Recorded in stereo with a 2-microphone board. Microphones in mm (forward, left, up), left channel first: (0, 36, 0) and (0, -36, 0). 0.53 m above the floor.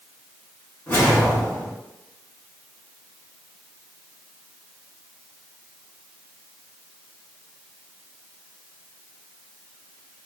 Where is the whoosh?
30° left (ahead or behind), 1.7 m.